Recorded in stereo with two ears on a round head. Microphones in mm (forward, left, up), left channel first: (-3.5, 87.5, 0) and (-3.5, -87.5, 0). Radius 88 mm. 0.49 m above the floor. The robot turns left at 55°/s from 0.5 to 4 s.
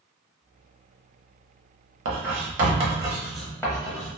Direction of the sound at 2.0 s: 75° right (ahead or behind).